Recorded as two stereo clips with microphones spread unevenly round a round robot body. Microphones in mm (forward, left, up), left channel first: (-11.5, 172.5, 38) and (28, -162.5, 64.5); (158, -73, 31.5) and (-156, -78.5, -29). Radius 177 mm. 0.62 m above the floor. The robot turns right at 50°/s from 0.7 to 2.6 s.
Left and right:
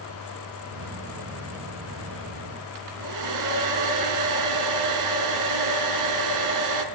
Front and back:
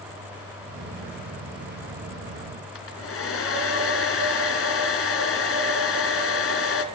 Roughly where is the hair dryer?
Ahead right.